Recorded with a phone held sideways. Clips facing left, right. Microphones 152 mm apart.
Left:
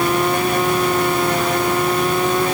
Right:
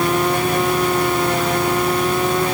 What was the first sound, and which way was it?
Only background noise.